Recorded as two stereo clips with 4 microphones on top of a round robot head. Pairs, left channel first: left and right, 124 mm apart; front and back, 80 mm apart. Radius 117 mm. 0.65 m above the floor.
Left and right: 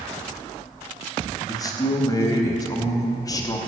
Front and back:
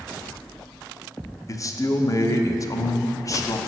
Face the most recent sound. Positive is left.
turn(degrees=35)